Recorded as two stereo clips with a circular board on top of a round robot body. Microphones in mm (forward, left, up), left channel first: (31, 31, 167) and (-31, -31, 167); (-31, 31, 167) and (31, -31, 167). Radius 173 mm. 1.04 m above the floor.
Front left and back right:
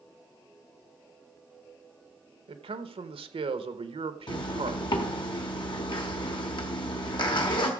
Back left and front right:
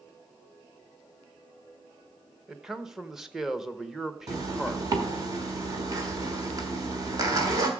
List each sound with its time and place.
2.5 s a man speaking: 130° right, 1.0 m
4.3 s a zipper: 10° left, 1.2 m